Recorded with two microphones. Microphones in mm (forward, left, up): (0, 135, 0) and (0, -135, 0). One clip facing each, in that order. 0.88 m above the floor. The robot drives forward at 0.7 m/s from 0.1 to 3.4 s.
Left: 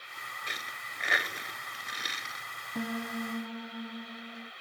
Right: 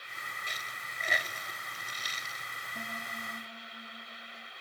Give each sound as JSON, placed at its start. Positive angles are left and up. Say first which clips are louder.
{"t": 0.5, "sound": "a dropped coin", "louder": "left 2 dB", "side_deg": 75}
{"t": 2.8, "sound": "a piano", "louder": "left 12 dB", "side_deg": 85}